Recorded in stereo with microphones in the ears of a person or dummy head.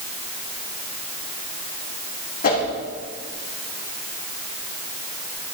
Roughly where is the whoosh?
Left.